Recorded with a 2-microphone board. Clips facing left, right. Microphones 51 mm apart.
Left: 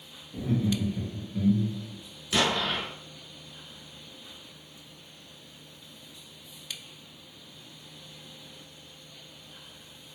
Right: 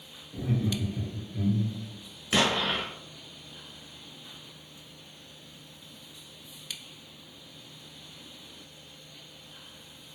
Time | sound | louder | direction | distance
0.3 | laughter | left 2 dB | 10° right (ahead or behind) | 1.6 m
2.3 | an explosion | right 1 dB | 30° right (ahead or behind) | 1.0 m